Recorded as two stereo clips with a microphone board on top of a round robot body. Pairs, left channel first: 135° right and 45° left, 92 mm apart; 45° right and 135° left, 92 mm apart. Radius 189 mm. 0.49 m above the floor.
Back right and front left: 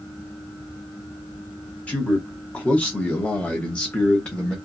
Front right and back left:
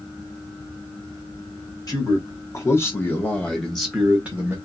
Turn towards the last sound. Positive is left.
turn(degrees=155)